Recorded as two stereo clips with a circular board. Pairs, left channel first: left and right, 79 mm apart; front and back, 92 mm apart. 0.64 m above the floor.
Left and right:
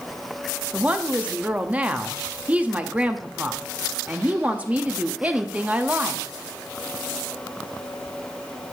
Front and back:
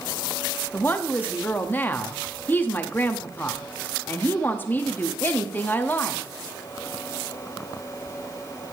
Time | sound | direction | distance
0.7 | a woman speaking | 40° right | 0.7 m